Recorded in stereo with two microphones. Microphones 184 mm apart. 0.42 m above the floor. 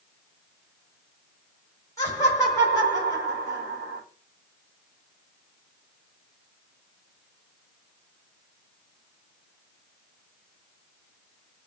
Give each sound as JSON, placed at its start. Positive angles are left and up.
{"t": 2.0, "sound": "laughter", "side_deg": 15, "distance_m": 1.4}